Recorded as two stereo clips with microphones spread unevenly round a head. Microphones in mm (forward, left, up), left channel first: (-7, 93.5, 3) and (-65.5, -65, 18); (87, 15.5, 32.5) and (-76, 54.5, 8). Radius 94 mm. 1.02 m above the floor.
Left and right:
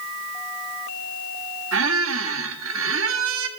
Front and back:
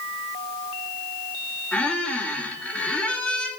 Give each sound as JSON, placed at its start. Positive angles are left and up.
{"t": 1.7, "sound": "a squeak", "azimuth_deg": -100, "distance_m": 1.4}